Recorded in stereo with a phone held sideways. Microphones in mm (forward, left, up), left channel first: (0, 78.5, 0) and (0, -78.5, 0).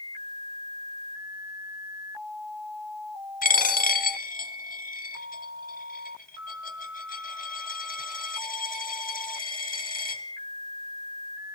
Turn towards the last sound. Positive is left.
turn(degrees=65)  # may be behind; listen again after turning